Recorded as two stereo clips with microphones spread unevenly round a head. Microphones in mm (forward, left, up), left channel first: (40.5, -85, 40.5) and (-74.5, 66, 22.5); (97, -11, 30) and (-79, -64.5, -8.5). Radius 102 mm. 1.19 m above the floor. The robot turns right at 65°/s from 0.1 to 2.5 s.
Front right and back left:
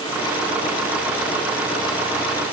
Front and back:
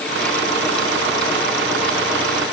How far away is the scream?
I don't hear a scream.